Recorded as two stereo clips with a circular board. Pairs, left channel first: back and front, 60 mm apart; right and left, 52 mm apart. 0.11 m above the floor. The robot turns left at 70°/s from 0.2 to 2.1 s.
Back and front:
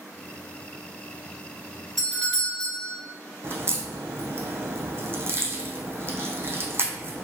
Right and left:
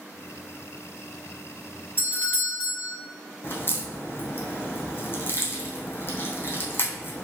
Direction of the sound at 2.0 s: 90° right.